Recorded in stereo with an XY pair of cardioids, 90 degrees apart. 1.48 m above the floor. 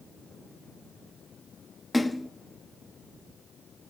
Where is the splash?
15° left, 0.6 m.